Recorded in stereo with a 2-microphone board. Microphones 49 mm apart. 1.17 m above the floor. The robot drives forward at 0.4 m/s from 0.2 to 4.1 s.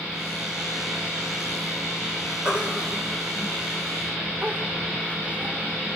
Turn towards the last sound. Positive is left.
turn(degrees=-30)  # may be behind; listen again after turning